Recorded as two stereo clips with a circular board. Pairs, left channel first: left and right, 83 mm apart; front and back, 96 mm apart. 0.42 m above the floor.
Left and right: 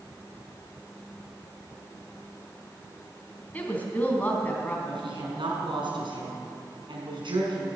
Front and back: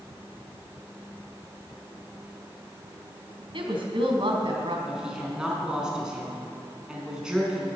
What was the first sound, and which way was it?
A woman speaking, 160° left.